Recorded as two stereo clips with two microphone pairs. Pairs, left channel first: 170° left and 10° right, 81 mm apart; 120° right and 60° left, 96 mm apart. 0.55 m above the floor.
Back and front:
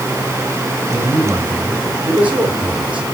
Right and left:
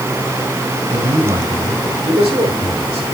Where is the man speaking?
50° left, 5.5 m; by 3.0 s 65° left, 5.5 m.